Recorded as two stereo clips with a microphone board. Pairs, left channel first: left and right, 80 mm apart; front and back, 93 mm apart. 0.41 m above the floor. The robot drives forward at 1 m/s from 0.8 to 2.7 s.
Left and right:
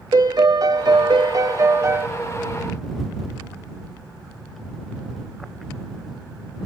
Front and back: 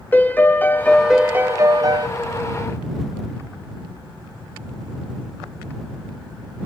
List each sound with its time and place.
0.1 s a piano: 70° right, 0.8 m; by 2.1 s 145° right, 1.3 m